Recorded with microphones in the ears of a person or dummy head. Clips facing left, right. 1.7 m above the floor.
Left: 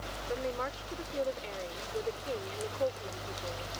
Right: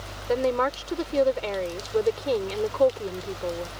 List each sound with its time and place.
0.3 s a woman speaking: 75° right (ahead or behind)